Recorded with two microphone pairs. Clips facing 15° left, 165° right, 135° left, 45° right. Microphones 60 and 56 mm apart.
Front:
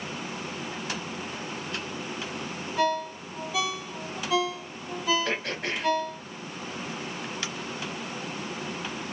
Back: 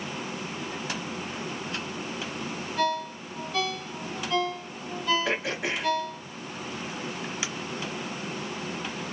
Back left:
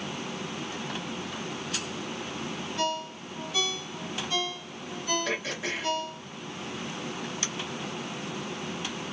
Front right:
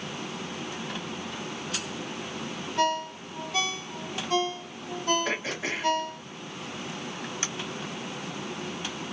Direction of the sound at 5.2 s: 90° right.